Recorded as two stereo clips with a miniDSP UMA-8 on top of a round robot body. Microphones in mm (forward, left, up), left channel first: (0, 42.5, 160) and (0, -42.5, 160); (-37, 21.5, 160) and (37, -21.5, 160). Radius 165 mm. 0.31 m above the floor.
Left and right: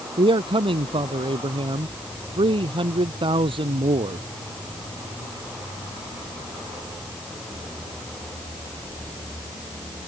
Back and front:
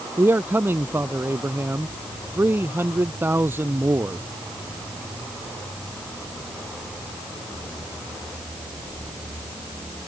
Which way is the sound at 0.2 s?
95° right.